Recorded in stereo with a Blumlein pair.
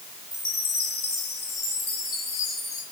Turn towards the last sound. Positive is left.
turn(degrees=35)